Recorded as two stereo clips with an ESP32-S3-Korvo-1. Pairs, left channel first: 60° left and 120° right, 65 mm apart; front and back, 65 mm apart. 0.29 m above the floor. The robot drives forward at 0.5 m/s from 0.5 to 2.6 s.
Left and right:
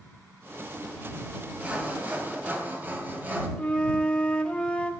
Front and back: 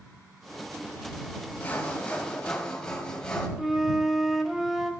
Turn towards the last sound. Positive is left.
turn(degrees=100)